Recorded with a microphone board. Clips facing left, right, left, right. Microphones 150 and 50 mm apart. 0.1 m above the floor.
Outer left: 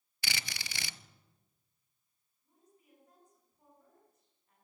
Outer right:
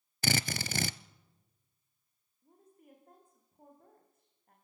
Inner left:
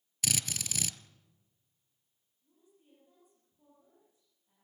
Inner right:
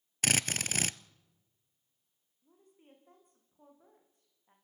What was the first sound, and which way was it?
A drill, 50° right (ahead or behind).